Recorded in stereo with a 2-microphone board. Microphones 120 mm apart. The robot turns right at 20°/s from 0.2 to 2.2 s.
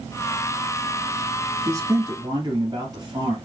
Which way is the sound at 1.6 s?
30° right (ahead or behind).